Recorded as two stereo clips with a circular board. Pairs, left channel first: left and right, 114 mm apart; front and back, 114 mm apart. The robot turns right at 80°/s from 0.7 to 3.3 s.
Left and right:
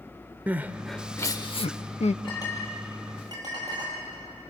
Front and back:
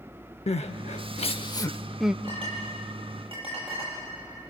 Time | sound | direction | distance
0.5 | crying | 15° right | 0.6 m
2.2 | a clink | 130° left | 9 m